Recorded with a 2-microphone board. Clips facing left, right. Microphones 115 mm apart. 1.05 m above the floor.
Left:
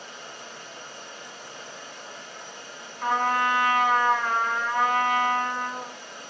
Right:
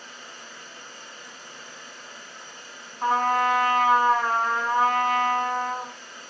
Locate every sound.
0.0 s running water: 15° left (ahead or behind), 2.5 m
3.0 s a trumpet: 40° right (ahead or behind), 3 m